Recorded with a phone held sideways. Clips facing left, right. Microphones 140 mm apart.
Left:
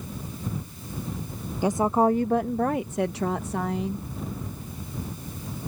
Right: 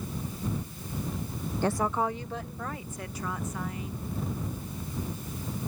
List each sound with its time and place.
1.6 s a woman speaking: 10° left (ahead or behind); by 4.0 s 85° left